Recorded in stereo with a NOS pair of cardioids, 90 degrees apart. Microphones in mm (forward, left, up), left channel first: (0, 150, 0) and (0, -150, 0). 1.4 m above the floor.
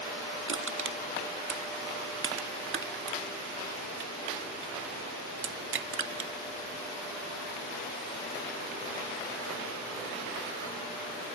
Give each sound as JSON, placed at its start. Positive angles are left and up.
{"t": 0.5, "sound": "crushing", "azimuth_deg": -45, "distance_m": 2.0}